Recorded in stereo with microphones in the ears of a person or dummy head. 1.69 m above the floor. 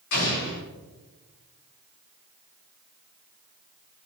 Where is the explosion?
55° left (ahead or behind), 1.9 m.